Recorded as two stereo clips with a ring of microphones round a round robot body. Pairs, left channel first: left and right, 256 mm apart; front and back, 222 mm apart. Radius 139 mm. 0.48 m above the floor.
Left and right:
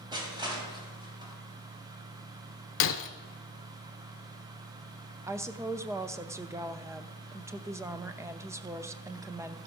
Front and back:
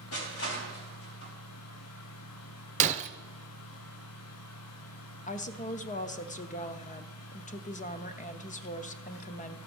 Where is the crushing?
15° right, 3 m.